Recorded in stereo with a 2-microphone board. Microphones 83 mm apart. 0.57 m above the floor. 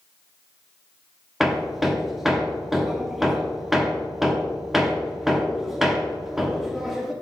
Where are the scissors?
I don't hear scissors.